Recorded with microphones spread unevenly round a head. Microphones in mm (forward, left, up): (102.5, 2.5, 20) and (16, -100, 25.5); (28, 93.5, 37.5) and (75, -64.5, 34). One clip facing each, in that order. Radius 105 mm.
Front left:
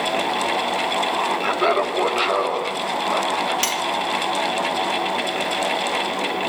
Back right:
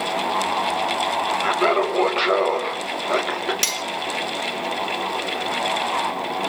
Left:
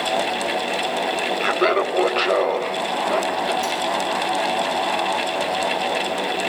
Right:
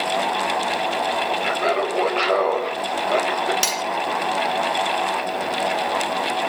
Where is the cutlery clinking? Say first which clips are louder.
Front left 5 dB, left 2 dB; 75° right, 1.2 m.